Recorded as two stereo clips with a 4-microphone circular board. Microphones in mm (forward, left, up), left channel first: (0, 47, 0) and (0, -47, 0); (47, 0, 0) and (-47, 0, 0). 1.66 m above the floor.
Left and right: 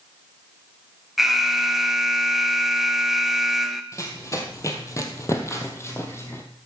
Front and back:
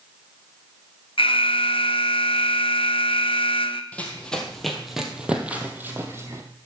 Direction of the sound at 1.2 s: Straight ahead.